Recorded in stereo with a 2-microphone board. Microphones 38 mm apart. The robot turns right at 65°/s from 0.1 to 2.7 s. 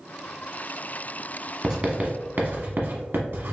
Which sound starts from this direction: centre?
Writing, at 1.6 s.